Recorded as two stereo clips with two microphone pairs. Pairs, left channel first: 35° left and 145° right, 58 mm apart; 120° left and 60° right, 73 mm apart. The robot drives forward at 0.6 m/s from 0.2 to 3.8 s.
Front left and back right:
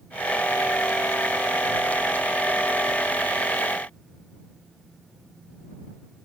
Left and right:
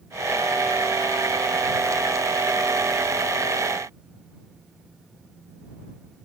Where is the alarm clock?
I don't hear an alarm clock.